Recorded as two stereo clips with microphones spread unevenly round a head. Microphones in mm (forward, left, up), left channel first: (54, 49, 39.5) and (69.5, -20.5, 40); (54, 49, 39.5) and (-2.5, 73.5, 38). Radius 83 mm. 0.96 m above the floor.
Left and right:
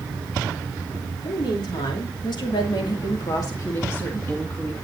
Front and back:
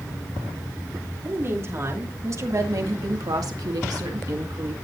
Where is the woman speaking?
110° left, 3 m; by 4.8 s 170° right, 2 m.